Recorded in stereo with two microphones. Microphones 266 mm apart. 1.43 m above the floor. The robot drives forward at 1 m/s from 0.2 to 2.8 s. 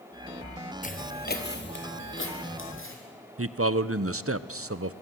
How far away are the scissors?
No scissors in this recording.